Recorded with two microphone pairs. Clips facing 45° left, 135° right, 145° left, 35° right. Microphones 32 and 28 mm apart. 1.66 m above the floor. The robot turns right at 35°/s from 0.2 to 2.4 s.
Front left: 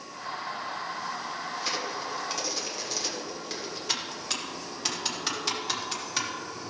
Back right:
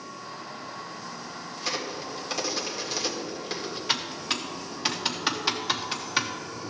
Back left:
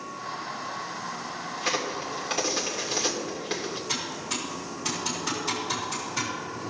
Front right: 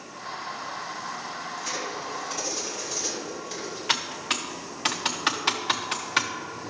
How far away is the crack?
About 1.8 m.